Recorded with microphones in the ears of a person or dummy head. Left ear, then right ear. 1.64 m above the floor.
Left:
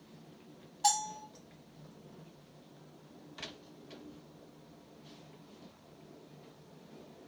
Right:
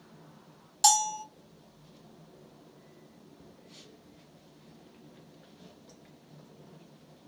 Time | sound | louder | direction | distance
0.8 | a bell | right 7 dB | 50° right (ahead or behind) | 1.5 m